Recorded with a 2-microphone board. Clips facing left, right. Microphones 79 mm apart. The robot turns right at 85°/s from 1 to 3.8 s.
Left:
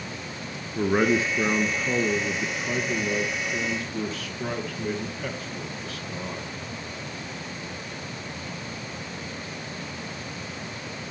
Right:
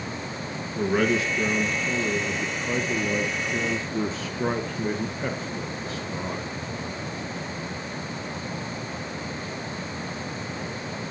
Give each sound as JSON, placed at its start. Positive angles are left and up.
{"t": 0.8, "sound": "a man speaking", "azimuth_deg": 50, "distance_m": 1.4}